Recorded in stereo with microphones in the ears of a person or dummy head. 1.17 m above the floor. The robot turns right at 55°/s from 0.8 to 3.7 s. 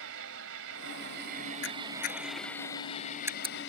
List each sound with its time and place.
0.0 s an engine running: 85° right; by 3.7 s 75° left
1.6 s a camera shutter: 75° left (ahead or behind); by 3.6 s 30° right (ahead or behind)